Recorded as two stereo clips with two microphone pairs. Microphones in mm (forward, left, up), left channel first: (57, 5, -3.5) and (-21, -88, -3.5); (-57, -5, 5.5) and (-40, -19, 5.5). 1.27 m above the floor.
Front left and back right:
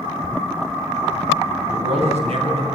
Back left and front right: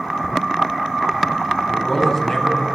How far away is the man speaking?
About 9.5 m.